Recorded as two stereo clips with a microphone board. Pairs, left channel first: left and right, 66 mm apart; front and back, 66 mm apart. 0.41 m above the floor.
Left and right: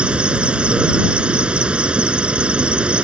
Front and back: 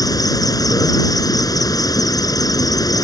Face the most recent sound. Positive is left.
turn(degrees=-15)